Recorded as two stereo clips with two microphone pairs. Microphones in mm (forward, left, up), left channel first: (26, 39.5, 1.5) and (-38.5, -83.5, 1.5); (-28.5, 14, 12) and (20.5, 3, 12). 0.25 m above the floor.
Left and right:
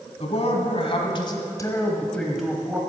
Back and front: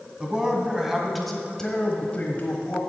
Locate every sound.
0.2 s a man speaking: 60° left, 2 m; by 2.8 s 175° left, 1.5 m